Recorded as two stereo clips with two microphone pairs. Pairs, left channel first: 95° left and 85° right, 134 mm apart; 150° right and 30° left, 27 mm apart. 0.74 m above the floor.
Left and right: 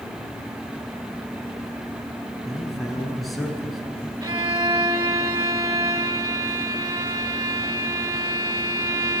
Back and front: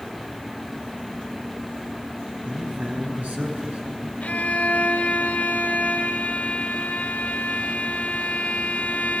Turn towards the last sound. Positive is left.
turn(degrees=-140)